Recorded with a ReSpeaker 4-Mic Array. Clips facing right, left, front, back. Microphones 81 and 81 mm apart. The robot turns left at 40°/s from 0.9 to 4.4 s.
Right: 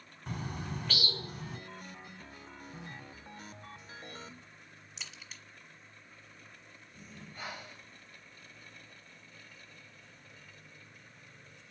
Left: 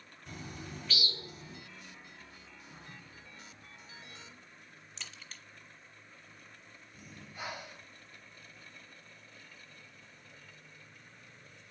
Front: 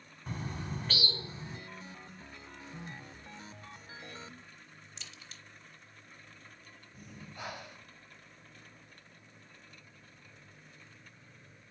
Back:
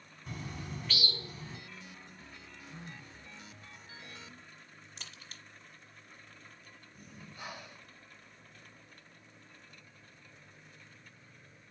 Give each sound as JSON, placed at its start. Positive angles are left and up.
{"t": 0.3, "sound": "a bird", "azimuth_deg": -50, "distance_m": 0.9}
{"t": 2.7, "sound": "a phone buzzing", "azimuth_deg": 70, "distance_m": 2.5}
{"t": 5.0, "sound": "a crack", "azimuth_deg": -170, "distance_m": 0.7}
{"t": 6.9, "sound": "breathing", "azimuth_deg": 10, "distance_m": 1.0}